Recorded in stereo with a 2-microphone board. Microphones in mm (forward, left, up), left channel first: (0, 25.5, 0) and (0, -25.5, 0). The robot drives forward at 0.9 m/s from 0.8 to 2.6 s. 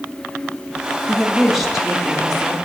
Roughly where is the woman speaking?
Centre.